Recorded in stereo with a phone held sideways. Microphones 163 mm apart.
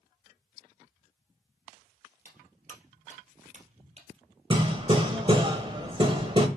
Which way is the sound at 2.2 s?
55° right (ahead or behind).